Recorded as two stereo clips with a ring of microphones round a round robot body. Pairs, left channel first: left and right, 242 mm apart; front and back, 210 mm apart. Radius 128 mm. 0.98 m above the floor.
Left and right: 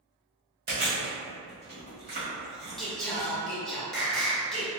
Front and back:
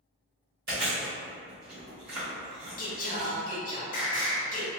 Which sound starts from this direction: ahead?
Singing, at 2.8 s.